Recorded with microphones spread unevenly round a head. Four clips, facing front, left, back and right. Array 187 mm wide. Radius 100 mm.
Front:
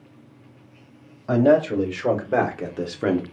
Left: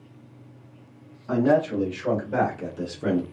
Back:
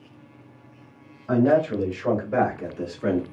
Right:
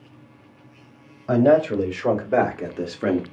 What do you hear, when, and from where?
1.3 s a man speaking: 45° right, 2 m; by 3.2 s 25° right, 1.0 m